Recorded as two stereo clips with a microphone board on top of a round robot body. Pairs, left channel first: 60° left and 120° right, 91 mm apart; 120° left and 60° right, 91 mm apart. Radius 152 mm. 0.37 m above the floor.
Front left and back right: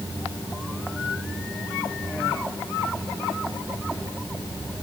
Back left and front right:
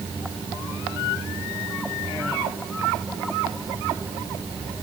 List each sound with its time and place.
Only background noise.